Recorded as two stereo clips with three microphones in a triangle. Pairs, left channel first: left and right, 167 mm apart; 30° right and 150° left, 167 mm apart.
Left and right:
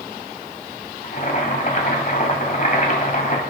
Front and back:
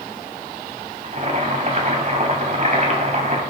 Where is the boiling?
115° left, 2.0 m.